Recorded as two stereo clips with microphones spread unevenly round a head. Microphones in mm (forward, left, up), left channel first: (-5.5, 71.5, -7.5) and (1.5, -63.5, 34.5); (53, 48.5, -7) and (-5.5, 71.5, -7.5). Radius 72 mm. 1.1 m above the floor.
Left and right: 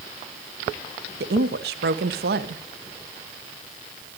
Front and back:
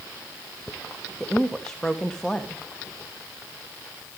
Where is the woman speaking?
105° right, 1.1 m.